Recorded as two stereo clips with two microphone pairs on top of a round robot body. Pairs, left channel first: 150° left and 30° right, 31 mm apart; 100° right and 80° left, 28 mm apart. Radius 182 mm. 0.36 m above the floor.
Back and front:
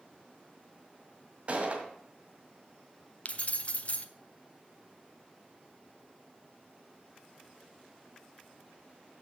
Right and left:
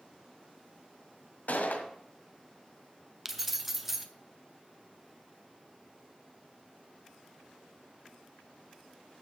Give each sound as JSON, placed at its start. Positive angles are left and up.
{"t": 1.5, "sound": "a gunshot", "azimuth_deg": -80, "distance_m": 1.9}
{"t": 3.2, "sound": "keys jangling", "azimuth_deg": 170, "distance_m": 1.2}